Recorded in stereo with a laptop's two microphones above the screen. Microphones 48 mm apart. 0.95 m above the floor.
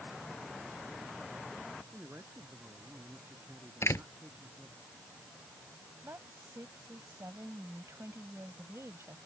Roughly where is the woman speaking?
Right.